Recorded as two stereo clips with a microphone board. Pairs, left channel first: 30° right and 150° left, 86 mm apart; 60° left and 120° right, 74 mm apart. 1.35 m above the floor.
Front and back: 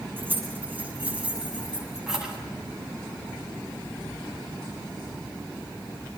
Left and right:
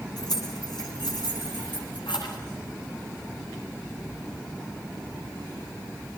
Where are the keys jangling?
80° left, 8 m; by 2.4 s 65° left, 8.5 m.